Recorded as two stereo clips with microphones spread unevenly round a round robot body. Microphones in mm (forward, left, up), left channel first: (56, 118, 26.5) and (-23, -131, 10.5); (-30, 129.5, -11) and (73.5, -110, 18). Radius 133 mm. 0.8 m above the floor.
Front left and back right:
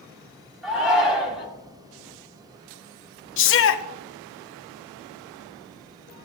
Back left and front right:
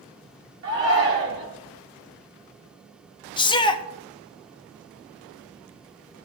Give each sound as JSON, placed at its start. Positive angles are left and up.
{"t": 0.6, "sound": "a shout", "azimuth_deg": -20, "distance_m": 5.5}
{"t": 3.4, "sound": "a shout", "azimuth_deg": 55, "distance_m": 1.1}